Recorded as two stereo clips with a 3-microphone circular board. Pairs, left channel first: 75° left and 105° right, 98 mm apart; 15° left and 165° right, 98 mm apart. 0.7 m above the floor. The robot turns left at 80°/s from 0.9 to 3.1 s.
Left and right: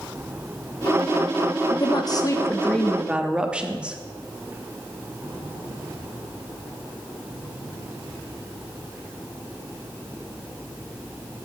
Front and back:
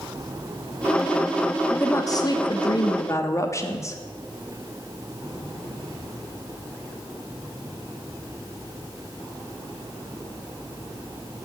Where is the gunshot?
No gunshot in this recording.